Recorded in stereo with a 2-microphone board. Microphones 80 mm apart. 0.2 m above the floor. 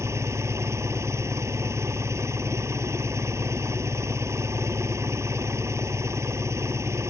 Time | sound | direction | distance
0.0 | an engine running | 40° right (ahead or behind) | ?